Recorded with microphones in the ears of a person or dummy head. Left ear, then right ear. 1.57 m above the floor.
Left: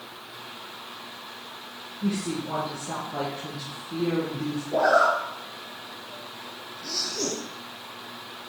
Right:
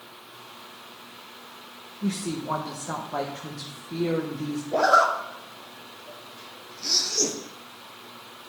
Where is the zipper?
75° right (ahead or behind), 1.3 m.